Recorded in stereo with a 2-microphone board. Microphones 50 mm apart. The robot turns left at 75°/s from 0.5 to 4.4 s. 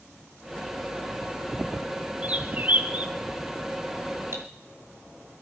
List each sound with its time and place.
2.2 s a bird: 60° right, 1.1 m; by 3.1 s 125° right, 1.1 m
4.3 s cutlery clinking: 65° right (ahead or behind), 2.5 m; by 4.5 s 70° right (ahead or behind), 2.5 m